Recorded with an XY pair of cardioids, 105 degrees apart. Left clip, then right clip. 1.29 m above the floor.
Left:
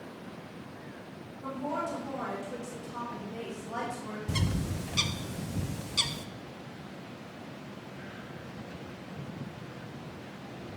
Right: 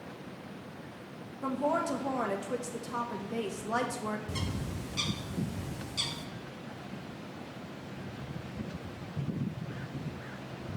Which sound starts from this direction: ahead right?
A woman speaking, at 1.4 s.